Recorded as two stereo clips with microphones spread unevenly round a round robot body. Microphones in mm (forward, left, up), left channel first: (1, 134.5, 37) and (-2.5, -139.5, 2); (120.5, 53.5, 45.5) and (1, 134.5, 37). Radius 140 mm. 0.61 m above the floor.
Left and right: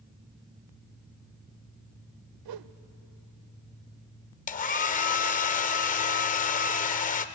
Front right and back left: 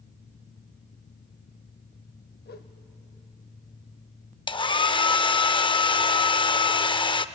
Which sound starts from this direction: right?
A whoosh, at 2.5 s.